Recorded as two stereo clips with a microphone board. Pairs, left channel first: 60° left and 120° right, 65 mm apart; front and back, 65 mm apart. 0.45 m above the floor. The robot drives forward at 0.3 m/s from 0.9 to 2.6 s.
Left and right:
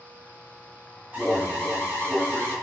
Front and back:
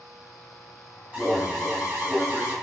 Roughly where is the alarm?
Behind right.